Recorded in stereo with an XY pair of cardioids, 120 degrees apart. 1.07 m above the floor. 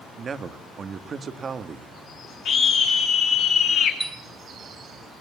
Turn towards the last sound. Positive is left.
turn(degrees=-15)